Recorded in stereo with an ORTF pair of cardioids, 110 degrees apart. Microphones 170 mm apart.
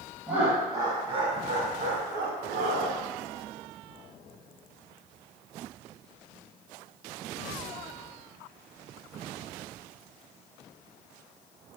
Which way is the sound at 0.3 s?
10° right.